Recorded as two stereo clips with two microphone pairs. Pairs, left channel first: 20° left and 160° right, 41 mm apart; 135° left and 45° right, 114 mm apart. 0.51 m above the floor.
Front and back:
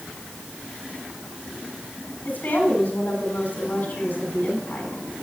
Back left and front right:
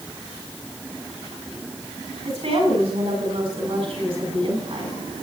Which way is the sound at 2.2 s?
25° right.